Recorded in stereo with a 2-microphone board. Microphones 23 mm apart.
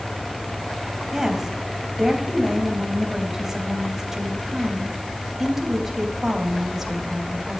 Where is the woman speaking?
15° right (ahead or behind), 3.5 m.